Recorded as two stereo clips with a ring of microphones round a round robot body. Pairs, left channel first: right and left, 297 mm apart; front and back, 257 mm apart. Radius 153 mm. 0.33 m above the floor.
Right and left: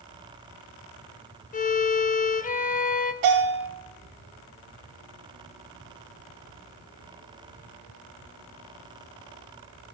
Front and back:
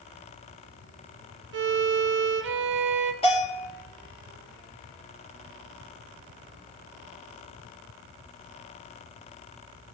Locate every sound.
1.5 s a violin: 150° right, 0.6 m
3.2 s a bell: 70° left, 7 m